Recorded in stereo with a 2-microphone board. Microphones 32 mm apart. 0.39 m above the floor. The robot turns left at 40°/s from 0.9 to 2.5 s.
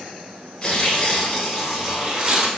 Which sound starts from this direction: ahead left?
Tearing paper, at 0.6 s.